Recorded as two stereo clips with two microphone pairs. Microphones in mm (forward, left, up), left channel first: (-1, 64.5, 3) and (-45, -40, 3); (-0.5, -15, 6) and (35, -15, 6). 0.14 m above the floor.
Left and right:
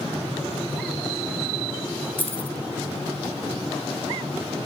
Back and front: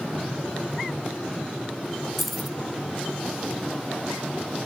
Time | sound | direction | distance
2.2 | keys jangling | 90° left | 0.7 m